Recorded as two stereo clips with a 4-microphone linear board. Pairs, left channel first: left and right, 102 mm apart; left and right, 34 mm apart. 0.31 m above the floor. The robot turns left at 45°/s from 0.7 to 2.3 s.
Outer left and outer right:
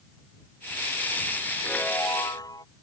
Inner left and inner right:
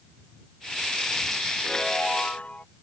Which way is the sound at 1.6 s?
10° left (ahead or behind).